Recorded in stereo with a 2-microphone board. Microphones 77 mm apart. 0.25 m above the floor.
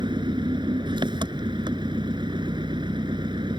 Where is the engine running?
70° right (ahead or behind).